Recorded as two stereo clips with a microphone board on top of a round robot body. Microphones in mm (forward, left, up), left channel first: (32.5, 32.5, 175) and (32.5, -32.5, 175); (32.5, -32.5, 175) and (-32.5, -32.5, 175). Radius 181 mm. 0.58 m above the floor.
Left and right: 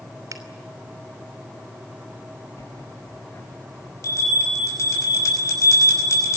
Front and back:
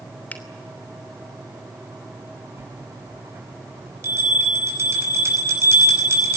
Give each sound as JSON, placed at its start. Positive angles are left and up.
{"t": 0.3, "sound": "a finger snap", "azimuth_deg": -65, "distance_m": 3.0}
{"t": 2.6, "sound": "a bell", "azimuth_deg": 130, "distance_m": 5.5}